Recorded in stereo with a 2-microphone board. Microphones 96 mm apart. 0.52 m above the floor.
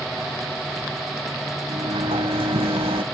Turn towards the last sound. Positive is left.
turn(degrees=-80)